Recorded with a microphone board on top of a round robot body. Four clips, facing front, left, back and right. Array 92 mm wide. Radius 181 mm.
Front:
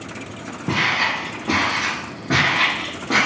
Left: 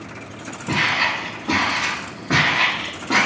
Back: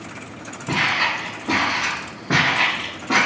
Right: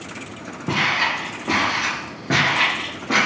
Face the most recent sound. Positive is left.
turn(degrees=-135)